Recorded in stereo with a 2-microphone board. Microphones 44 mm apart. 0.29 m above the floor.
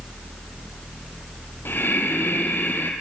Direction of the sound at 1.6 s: 50° left (ahead or behind).